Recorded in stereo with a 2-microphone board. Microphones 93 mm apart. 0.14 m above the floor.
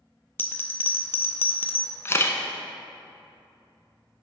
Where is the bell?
25° left (ahead or behind), 0.6 m.